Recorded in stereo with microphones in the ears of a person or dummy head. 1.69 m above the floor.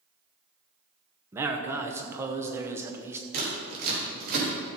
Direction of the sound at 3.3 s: 55° right (ahead or behind).